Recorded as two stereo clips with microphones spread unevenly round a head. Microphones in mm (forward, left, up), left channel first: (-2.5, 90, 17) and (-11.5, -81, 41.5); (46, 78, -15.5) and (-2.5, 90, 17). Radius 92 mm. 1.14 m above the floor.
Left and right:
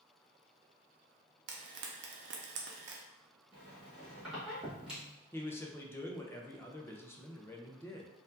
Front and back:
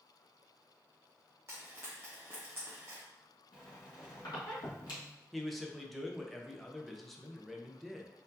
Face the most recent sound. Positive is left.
turn(degrees=25)